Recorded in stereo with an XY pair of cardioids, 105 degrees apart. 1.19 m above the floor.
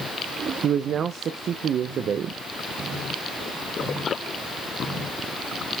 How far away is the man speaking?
About 0.5 m.